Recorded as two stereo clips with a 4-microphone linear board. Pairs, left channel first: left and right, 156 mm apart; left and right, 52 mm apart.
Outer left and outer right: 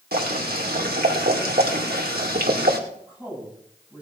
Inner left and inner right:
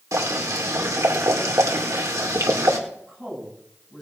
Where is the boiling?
80° right, 2.5 m.